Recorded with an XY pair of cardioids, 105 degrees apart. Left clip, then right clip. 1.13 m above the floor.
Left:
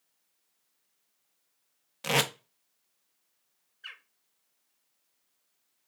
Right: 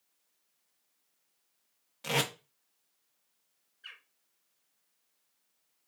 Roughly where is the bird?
Ahead left.